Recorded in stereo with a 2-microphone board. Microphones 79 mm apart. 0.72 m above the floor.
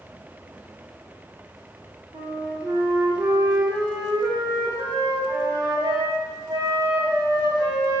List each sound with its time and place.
2.1 s a flute: 80° right, 0.6 m